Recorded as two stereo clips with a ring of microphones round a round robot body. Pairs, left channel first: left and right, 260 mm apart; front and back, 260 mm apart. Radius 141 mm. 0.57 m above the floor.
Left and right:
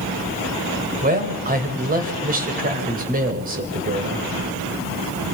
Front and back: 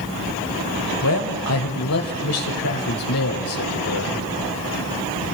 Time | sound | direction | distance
1.0 | a man speaking | 35° right | 3.5 m